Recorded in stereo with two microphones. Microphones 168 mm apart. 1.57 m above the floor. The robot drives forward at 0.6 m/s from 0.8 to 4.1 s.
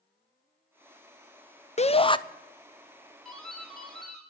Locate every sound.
1.8 s a shout: 40° left (ahead or behind), 0.5 m; by 2.2 s 30° left (ahead or behind), 0.7 m
3.2 s a doorbell: 5° left (ahead or behind), 3 m